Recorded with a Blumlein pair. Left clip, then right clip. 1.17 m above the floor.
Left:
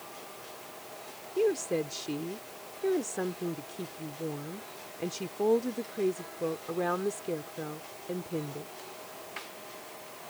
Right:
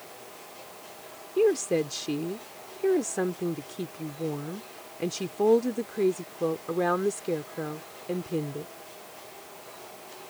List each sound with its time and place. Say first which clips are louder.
1.4 s a woman speaking: right 5 dB; 15° right